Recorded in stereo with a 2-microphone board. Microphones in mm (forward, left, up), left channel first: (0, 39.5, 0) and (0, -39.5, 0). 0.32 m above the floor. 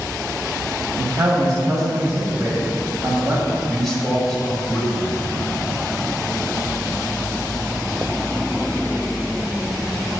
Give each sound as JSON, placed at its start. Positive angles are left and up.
{"t": 1.0, "sound": "a man speaking", "side_deg": -45, "distance_m": 1.6}
{"t": 3.7, "sound": "a man speaking", "side_deg": 5, "distance_m": 1.8}